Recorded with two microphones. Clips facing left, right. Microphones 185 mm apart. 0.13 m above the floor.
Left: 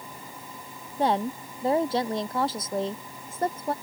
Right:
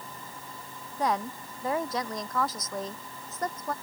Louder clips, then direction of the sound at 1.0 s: Left 4 dB; 30° left (ahead or behind).